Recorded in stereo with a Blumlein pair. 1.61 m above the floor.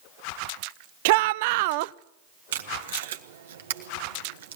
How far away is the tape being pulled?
About 1.5 m.